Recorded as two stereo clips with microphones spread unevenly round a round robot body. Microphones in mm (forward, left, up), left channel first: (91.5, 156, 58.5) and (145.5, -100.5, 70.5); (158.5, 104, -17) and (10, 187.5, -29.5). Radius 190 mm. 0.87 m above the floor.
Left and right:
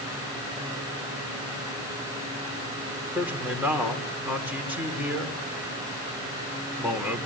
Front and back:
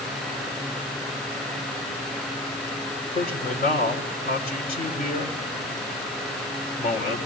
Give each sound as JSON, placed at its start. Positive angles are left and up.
{"t": 3.1, "sound": "a man speaking", "azimuth_deg": 5, "distance_m": 3.5}